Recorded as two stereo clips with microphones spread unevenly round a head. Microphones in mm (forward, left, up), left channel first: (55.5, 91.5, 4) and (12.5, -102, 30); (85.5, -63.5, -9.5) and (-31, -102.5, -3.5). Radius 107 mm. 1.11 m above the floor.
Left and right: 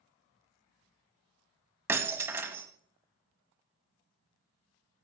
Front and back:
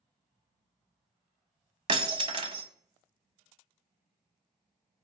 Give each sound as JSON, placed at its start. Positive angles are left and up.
{"t": 1.9, "sound": "breaking glass", "azimuth_deg": -170, "distance_m": 1.3}